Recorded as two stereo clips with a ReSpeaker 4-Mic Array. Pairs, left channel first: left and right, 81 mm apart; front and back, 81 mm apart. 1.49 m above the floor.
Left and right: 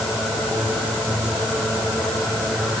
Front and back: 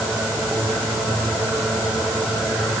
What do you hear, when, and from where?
Only background noise.